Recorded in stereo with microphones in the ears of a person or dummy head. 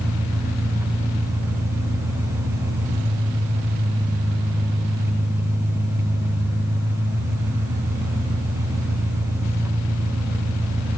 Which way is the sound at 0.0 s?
15° right (ahead or behind).